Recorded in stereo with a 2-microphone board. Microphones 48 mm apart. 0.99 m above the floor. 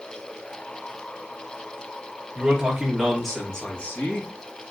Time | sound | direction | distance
2.4 | a man speaking | 20° right (ahead or behind) | 1.1 m